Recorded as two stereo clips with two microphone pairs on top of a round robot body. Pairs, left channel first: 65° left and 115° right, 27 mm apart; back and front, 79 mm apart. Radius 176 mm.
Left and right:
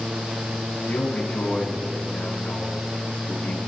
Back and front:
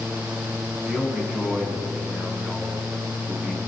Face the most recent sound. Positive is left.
turn(degrees=85)